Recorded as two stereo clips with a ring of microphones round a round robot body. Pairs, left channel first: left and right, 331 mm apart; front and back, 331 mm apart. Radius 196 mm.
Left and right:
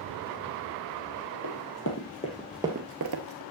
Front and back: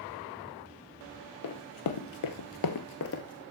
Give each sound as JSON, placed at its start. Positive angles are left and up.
{"t": 1.4, "sound": "running footsteps", "azimuth_deg": 45, "distance_m": 1.5}